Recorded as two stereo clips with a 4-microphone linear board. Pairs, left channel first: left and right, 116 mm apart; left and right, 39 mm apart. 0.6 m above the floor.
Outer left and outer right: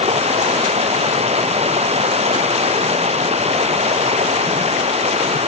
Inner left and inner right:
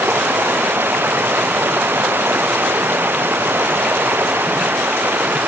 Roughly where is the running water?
Right.